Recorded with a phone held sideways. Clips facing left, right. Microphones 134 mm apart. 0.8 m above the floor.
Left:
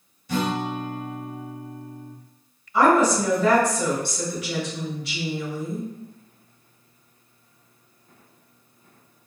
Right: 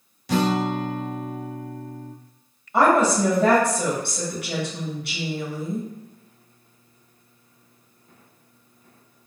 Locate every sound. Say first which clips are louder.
0.3 s a guitar: right 4 dB; 80° right, 0.6 m
2.7 s a woman speaking: even; 60° right (ahead or behind), 1.8 m